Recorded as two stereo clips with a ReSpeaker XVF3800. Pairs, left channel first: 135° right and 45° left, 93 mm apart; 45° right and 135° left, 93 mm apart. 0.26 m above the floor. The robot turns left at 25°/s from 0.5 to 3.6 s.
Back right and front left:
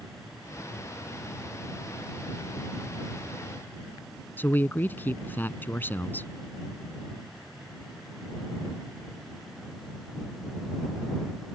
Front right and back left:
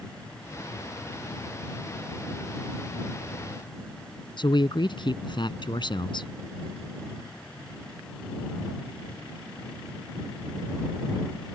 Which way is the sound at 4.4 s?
70° right.